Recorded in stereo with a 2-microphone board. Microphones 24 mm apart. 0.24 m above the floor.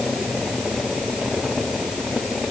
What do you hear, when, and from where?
Only background noise.